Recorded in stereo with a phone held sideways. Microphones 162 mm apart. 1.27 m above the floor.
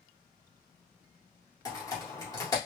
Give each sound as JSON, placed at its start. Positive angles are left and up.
{"t": 1.6, "sound": "typing on a keyboard", "side_deg": 20, "distance_m": 1.6}